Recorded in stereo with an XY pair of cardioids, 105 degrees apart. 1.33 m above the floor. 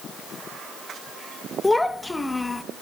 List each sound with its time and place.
1.6 s a child speaking: 15° left, 1.0 m